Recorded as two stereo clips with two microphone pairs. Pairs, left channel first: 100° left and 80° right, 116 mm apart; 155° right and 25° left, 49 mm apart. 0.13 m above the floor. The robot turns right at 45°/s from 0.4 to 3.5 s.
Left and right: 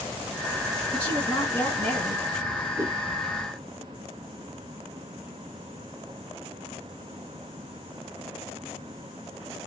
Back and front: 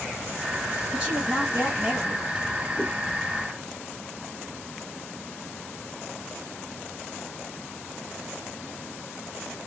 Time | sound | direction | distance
0.9 | a woman speaking | 50° left | 1.7 m
2.8 | a whoosh | 130° right | 0.8 m